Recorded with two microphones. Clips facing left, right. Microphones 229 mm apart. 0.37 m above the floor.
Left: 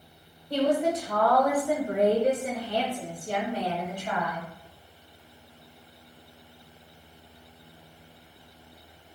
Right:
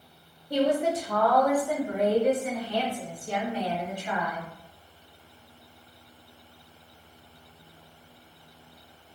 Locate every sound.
0.5 s a woman speaking: 15° right (ahead or behind), 1.0 m; by 4.5 s 45° left (ahead or behind), 1.9 m